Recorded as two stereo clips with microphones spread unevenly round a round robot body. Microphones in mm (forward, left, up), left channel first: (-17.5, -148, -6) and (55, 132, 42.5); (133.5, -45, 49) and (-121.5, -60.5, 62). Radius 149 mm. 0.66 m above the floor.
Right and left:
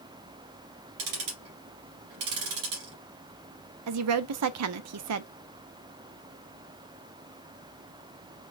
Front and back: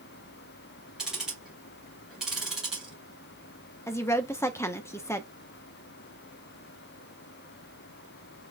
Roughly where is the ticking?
Left.